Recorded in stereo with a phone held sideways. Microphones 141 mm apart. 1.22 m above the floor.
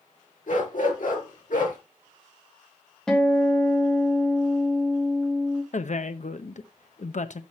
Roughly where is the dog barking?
Left.